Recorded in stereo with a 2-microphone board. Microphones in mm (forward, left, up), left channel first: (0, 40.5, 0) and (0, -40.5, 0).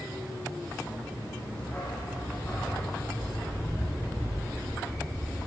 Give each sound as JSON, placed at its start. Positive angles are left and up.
{"t": 1.6, "sound": "a dog barking", "side_deg": 15, "distance_m": 3.0}